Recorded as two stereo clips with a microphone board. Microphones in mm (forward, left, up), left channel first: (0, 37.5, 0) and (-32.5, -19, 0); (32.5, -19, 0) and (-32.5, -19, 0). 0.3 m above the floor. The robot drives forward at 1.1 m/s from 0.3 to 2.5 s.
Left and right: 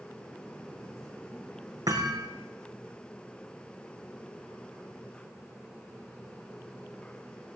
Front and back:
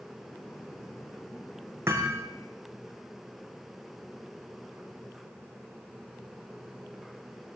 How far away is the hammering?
About 5 m.